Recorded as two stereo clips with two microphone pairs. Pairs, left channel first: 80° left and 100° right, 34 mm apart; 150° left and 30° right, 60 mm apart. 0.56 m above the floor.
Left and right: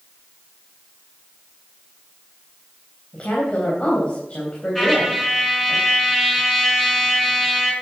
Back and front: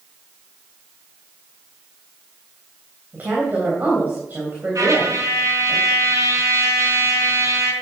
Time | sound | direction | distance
3.1 | a woman speaking | 25° left | 3 m
4.8 | a trumpet | 5° right | 4 m